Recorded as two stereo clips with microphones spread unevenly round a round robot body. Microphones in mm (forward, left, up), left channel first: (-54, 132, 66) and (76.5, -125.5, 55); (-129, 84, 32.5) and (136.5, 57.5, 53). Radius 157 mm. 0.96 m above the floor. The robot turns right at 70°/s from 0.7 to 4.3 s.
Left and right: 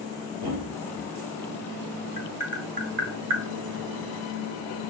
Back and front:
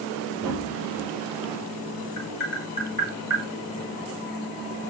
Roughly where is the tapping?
Behind.